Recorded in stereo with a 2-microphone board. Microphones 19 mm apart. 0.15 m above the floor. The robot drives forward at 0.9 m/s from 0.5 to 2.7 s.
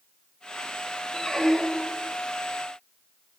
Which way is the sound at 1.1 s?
40° left (ahead or behind).